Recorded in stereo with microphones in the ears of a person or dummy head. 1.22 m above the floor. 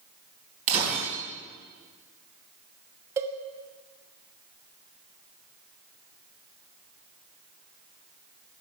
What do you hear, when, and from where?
0.7 s breaking glass: 45° right (ahead or behind), 3.5 m
3.2 s a cowbell: 20° right (ahead or behind), 0.8 m